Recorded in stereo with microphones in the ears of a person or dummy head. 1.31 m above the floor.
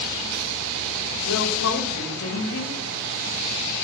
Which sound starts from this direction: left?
A woman speaking, at 1.3 s.